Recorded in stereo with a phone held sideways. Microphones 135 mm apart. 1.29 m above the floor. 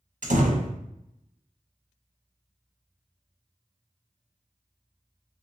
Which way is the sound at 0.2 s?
65° right (ahead or behind).